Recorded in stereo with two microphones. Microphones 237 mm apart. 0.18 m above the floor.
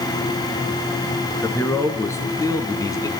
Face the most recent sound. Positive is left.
turn(degrees=15)  # may be behind; listen again after turning